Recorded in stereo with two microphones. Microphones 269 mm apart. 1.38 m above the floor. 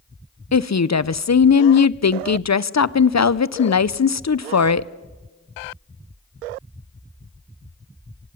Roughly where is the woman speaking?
Left.